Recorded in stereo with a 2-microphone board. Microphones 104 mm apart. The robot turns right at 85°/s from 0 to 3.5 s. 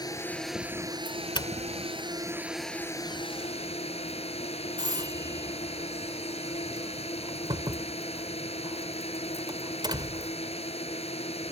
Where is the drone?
140° left; by 11.5 s 75° left.